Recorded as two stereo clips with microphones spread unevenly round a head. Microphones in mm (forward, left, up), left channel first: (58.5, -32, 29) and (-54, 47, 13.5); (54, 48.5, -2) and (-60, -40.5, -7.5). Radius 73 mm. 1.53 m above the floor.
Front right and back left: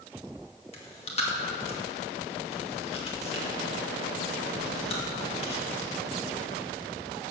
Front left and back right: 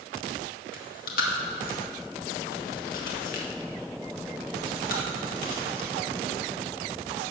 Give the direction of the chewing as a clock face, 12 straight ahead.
12 o'clock.